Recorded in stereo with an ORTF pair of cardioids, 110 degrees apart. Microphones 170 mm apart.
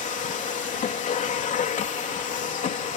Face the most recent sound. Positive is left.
turn(degrees=50)